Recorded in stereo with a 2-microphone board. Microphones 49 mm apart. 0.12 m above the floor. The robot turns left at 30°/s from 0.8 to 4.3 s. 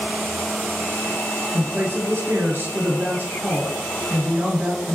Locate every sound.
1.5 s a woman speaking: 70° right, 1.7 m; by 4.9 s 155° right, 1.7 m